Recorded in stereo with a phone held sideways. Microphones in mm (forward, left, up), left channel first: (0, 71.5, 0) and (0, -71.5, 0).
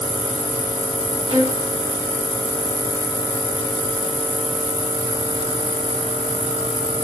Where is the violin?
40° right (ahead or behind), 3 m.